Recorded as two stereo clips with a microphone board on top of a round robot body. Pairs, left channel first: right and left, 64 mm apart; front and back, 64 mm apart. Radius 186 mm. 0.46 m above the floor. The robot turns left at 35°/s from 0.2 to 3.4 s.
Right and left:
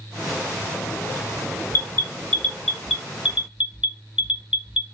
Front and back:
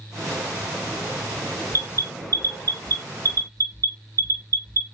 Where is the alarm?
135° right, 1.4 m; by 4.8 s 165° left, 1.4 m.